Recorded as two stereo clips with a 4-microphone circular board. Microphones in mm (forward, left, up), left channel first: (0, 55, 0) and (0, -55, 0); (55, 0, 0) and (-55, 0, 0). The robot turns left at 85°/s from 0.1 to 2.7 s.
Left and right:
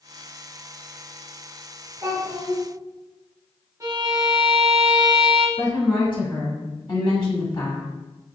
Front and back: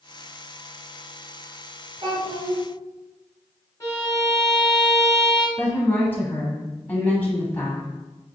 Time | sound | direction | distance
2.0 | a child speaking | 140° right | 1.9 m
3.8 | a violin | 50° right | 0.9 m
5.6 | a woman speaking | 65° left | 1.2 m